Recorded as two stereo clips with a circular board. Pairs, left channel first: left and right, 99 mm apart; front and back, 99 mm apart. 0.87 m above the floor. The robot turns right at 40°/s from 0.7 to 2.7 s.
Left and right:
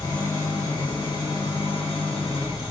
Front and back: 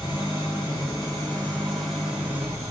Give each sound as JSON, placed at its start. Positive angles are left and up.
{"t": 0.0, "sound": "an engine running", "azimuth_deg": 45, "distance_m": 3.5}